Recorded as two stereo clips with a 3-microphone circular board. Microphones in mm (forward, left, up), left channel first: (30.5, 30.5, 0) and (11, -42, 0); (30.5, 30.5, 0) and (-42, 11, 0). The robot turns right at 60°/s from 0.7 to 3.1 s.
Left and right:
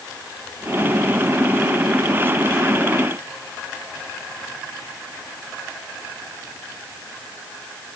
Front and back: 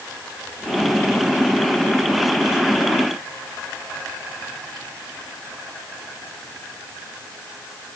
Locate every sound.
Only background noise.